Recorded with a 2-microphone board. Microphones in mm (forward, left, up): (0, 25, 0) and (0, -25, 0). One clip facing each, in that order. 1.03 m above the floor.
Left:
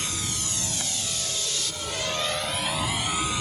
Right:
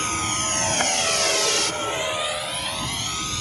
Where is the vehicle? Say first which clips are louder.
Right 8 dB; 45° right (ahead or behind); by 3.4 s 15° left (ahead or behind).